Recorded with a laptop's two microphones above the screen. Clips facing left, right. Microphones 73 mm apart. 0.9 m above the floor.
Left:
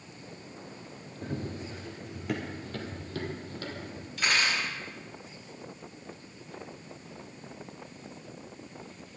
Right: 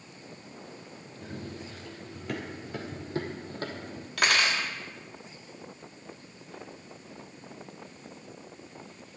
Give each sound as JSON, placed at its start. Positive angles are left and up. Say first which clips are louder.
{"t": 1.2, "sound": "running footsteps", "louder": "left 4 dB", "side_deg": 40, "distance_m": 1.2}
{"t": 4.2, "sound": "cutlery clinking", "louder": "right 2 dB", "side_deg": -85, "distance_m": 1.2}